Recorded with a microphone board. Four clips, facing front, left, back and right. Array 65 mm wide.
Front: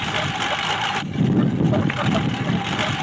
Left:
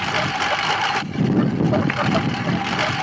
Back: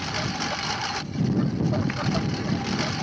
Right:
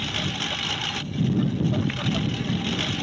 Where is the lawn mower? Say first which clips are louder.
Left 9 dB, front 5 dB; 75° left.